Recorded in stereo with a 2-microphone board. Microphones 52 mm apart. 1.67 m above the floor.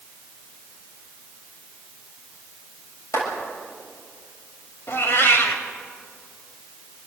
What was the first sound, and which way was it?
A clap, 70° left (ahead or behind).